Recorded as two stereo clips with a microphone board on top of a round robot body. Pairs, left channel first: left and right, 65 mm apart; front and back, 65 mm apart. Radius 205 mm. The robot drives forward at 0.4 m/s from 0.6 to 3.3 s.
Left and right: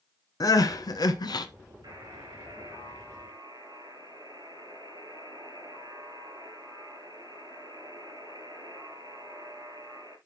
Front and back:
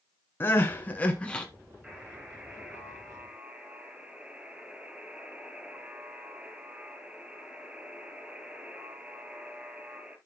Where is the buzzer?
105° right, 6 m; by 10.2 s 110° right, 6.5 m.